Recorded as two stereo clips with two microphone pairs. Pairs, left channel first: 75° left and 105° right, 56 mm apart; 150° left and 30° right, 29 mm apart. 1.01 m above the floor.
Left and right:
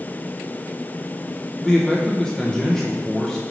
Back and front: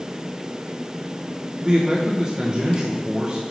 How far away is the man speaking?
About 0.9 m.